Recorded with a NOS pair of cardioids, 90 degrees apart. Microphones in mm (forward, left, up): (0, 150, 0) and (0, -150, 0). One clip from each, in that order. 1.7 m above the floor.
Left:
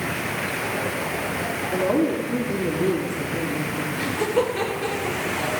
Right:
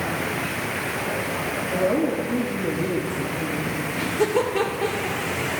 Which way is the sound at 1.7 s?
15° left.